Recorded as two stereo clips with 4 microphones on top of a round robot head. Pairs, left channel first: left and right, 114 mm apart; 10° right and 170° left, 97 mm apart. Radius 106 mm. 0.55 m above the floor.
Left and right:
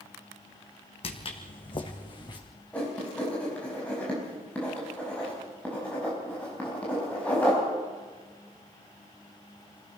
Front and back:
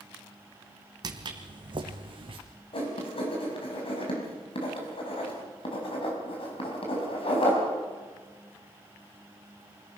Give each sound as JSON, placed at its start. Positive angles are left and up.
{"t": 1.0, "sound": "footsteps", "azimuth_deg": 125, "distance_m": 1.7}
{"t": 2.7, "sound": "writing", "azimuth_deg": 10, "distance_m": 5.0}